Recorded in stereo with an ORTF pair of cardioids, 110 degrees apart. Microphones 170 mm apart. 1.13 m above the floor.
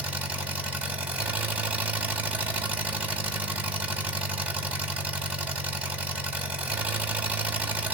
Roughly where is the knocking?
I don't hear knocking.